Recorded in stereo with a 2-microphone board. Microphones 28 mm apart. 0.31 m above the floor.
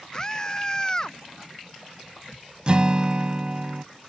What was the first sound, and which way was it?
A scream, 20° left (ahead or behind).